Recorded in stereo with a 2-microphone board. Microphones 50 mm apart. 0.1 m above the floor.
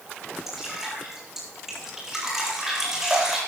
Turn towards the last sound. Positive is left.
turn(degrees=-5)  # may be behind; listen again after turning